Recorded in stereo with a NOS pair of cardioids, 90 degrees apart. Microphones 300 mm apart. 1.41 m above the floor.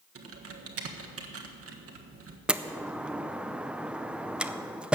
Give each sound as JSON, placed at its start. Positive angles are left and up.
{"t": 0.1, "sound": "typing on a keyboard", "azimuth_deg": -45, "distance_m": 1.5}
{"t": 2.5, "sound": "a door slam", "azimuth_deg": -5, "distance_m": 0.5}